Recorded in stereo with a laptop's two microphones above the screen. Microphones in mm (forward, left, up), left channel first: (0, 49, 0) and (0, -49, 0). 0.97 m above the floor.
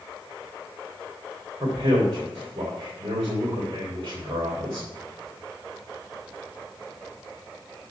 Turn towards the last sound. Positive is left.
turn(degrees=-65)  # may be behind; listen again after turning